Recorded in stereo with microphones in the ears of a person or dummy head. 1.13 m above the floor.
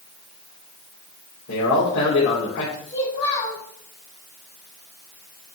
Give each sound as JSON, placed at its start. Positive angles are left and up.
{"t": 1.5, "sound": "a man speaking", "side_deg": 65, "distance_m": 3.0}
{"t": 2.9, "sound": "a child speaking", "side_deg": 35, "distance_m": 3.5}